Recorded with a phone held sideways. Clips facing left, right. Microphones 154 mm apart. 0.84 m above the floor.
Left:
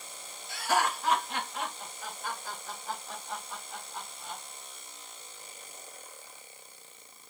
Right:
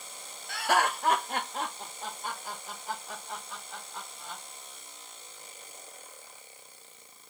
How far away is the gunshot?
I don't hear a gunshot.